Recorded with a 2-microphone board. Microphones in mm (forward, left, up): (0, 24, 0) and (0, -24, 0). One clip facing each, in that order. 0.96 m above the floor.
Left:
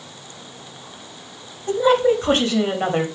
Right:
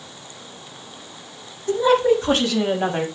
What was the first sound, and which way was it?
A woman speaking, 35° left (ahead or behind).